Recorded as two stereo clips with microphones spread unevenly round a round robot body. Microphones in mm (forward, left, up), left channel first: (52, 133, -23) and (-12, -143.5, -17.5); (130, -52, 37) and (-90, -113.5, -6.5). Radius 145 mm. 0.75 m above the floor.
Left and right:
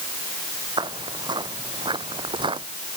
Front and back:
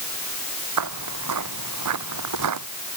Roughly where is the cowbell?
No cowbell in this recording.